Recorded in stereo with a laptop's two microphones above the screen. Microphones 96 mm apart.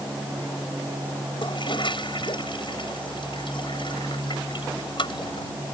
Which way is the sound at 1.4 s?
60° left (ahead or behind).